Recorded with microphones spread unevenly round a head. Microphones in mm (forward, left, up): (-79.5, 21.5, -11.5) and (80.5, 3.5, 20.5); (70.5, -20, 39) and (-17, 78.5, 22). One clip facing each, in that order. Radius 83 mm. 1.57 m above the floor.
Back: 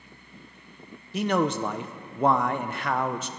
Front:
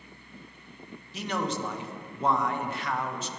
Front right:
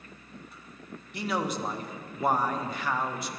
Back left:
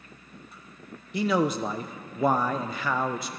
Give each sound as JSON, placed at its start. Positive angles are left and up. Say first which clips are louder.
{"t": 1.1, "sound": "a man speaking", "louder": "back 7 dB, back left 6 dB", "azimuth_deg": 130, "distance_m": 0.9}